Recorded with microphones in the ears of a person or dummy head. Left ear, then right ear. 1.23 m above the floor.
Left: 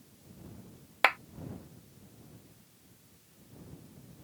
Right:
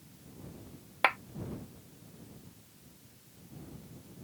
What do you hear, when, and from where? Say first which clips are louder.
1.0 s a clap: left 2 dB; 20° left (ahead or behind)